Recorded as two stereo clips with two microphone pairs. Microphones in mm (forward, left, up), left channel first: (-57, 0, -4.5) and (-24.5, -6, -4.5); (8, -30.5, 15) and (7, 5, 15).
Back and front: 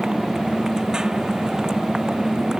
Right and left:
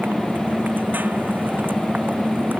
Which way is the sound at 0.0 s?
60° left.